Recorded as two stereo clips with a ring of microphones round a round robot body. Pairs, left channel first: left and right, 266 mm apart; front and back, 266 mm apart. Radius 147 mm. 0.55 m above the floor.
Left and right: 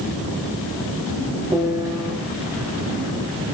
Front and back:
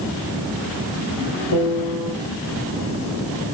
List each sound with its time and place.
1.5 s a piano: 15° right, 3.5 m